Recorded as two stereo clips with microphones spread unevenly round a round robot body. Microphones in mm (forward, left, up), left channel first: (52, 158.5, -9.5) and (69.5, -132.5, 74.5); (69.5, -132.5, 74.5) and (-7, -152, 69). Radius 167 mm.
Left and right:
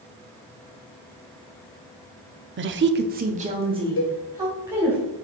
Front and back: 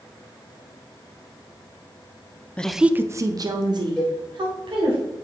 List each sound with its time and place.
2.6 s a woman speaking: 55° right, 0.7 m; by 5.0 s 175° right, 2.5 m
4.0 s a cowbell: 100° left, 2.5 m